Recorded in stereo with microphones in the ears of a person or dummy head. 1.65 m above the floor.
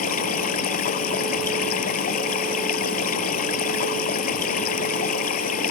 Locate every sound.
0.0 s running water: 50° left (ahead or behind)